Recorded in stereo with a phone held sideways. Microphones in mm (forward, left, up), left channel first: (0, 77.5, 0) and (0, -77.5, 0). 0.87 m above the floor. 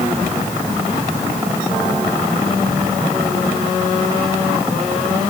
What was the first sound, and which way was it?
Only background noise.